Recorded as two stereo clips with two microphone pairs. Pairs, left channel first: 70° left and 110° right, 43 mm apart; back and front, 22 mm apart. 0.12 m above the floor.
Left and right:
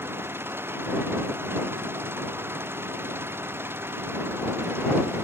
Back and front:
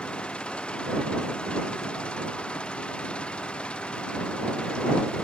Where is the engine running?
140° right.